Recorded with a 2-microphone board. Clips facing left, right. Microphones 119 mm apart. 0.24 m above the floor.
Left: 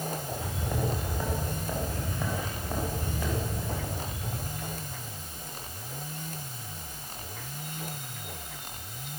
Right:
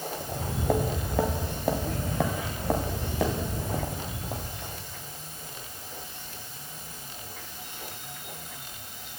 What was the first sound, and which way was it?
Footsteps, 85° right.